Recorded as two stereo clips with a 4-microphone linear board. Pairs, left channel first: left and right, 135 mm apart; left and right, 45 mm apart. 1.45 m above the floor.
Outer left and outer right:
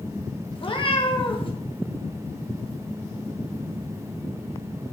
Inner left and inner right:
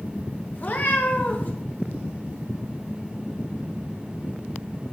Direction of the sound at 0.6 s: 40° left (ahead or behind).